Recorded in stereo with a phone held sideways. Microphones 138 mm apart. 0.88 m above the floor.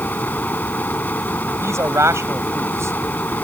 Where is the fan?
10° left (ahead or behind).